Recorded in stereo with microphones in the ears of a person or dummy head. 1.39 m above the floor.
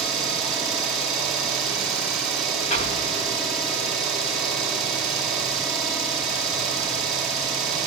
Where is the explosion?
30° left (ahead or behind), 1.3 m.